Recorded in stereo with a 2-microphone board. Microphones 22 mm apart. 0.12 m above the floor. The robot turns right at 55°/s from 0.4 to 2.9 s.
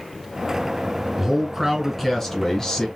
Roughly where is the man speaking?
Ahead right.